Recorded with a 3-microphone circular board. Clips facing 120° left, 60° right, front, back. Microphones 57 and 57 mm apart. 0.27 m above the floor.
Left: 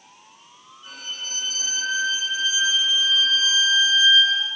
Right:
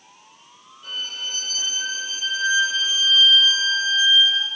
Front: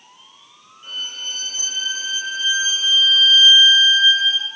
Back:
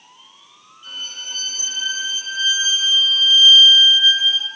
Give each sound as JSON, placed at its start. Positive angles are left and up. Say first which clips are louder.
{"t": 0.8, "sound": "a violin", "louder": "right 4 dB, front 2 dB", "azimuth_deg": -55, "distance_m": 4.0}